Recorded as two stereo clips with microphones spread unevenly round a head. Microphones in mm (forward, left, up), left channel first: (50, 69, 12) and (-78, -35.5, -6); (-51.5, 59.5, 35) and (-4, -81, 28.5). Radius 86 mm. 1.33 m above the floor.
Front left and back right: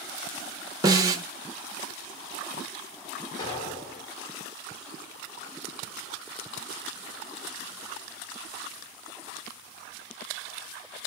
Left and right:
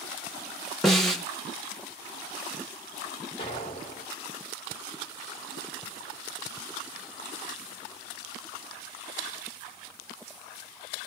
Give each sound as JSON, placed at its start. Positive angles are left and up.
{"t": 0.8, "sound": "a snare drum", "azimuth_deg": -175, "distance_m": 0.8}
{"t": 3.4, "sound": "an explosion", "azimuth_deg": 70, "distance_m": 1.2}